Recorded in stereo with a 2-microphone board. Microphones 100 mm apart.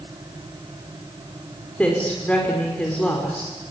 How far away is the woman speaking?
About 5.5 m.